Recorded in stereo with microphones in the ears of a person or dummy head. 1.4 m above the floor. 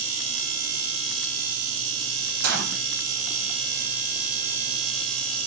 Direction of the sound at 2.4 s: 65° right (ahead or behind).